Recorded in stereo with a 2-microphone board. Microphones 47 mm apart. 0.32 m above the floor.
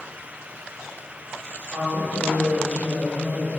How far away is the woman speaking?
About 1.4 m.